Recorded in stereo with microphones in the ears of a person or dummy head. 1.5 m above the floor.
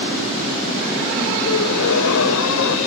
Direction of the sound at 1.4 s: 70° left (ahead or behind).